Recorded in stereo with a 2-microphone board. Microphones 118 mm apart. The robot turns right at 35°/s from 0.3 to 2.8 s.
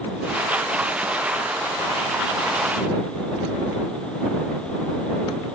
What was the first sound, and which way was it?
Only background noise.